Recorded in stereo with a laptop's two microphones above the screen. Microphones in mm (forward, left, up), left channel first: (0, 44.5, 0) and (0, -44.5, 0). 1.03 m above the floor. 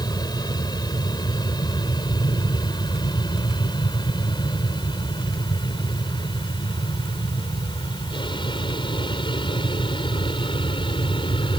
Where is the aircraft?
45° left (ahead or behind); by 11.6 s 65° left (ahead or behind).